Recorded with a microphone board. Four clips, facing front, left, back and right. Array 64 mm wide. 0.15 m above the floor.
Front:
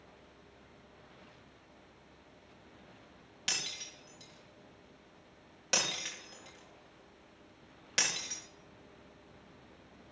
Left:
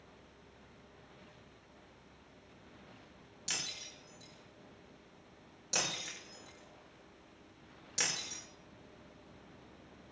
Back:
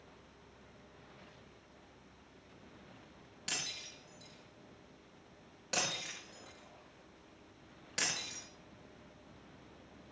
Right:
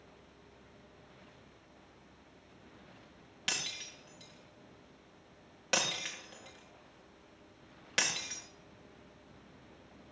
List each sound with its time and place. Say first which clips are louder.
3.5 s breaking glass: right 4 dB, front 3 dB; 70° right, 9.5 m